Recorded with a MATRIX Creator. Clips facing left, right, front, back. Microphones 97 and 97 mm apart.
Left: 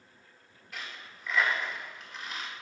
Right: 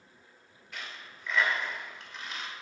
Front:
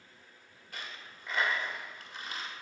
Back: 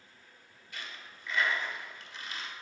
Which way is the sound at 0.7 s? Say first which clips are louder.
Even, even; 5° left.